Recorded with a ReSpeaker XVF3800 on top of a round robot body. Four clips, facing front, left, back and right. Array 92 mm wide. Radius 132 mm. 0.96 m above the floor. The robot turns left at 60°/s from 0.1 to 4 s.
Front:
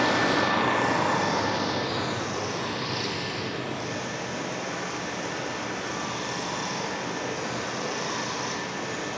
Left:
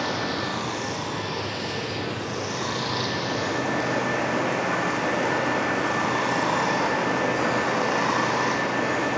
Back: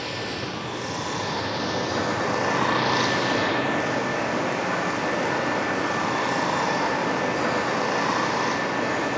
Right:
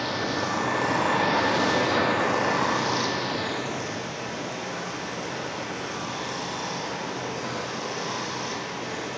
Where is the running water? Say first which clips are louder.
Even, front 8 dB; 5° left, 2.0 m; by 9.2 s 130° left, 2.0 m.